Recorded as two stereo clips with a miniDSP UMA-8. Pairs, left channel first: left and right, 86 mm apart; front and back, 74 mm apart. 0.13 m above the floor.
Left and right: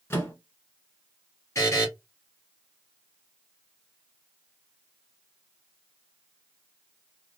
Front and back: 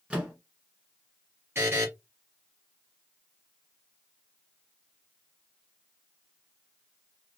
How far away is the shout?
I don't hear a shout.